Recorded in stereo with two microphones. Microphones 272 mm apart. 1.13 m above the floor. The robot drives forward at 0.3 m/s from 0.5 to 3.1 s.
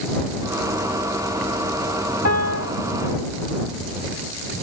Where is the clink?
I don't hear a clink.